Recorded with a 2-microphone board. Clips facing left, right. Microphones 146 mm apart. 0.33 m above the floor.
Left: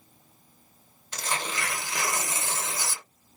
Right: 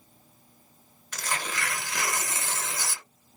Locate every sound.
1.1 s tearing paper: 25° left (ahead or behind), 0.8 m